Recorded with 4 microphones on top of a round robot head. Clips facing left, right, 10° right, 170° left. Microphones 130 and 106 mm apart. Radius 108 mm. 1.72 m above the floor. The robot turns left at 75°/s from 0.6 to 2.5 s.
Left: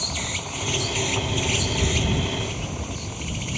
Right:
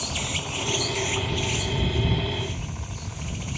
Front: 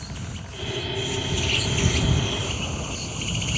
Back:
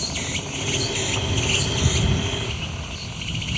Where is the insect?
170° right; by 3.6 s 45° left.